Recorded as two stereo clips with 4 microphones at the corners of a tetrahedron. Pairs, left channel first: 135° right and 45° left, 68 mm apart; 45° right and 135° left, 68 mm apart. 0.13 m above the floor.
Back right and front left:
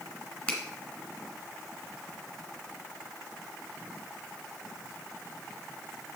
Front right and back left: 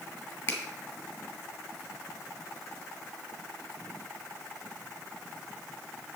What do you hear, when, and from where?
0.5 s a finger snap: 70° right, 1.9 m